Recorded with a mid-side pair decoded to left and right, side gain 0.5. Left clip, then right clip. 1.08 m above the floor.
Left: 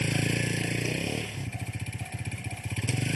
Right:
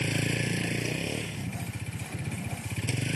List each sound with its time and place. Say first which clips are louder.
0.0 s a vehicle: left 1 dB; 15° left